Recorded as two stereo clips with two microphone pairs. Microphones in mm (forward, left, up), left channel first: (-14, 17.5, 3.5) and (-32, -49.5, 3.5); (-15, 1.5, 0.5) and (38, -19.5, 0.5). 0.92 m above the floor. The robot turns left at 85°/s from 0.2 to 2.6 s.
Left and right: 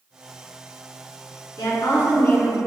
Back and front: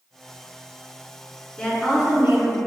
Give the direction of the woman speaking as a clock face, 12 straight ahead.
9 o'clock.